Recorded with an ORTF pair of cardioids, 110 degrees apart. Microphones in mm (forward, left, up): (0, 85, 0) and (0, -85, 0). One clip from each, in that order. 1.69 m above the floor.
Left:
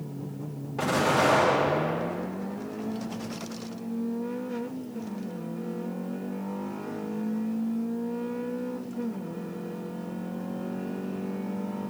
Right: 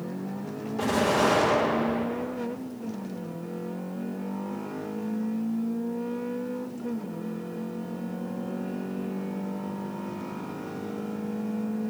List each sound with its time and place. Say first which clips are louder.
0.8 s an explosion: even; 35° left, 2 m